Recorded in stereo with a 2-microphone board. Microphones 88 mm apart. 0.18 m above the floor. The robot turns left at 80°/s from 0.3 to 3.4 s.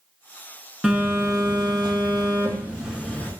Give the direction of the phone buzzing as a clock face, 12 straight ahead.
12 o'clock.